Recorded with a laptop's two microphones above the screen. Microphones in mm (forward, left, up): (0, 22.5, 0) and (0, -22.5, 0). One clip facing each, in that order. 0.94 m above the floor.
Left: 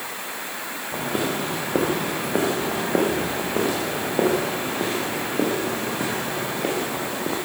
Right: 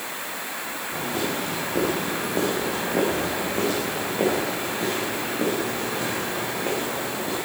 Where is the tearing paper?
I don't hear tearing paper.